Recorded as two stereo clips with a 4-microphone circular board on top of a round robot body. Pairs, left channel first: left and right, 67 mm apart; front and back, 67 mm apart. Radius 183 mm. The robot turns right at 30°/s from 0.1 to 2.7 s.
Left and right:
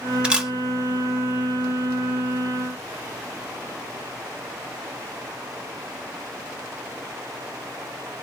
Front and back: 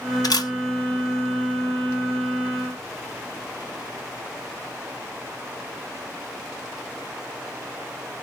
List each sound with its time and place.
0.2 s a camera shutter: 15° right, 1.3 m; by 0.5 s 5° right, 1.3 m